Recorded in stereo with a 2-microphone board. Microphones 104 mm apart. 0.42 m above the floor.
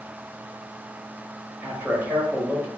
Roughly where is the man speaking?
Centre.